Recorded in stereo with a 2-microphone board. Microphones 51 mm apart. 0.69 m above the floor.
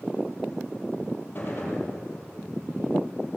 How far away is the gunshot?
About 5.5 m.